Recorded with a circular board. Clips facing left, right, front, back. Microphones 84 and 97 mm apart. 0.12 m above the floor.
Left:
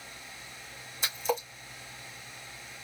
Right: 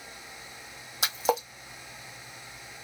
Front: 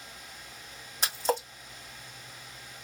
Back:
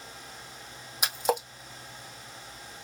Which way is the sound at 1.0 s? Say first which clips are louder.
Right 4 dB, back 1 dB; 100° right.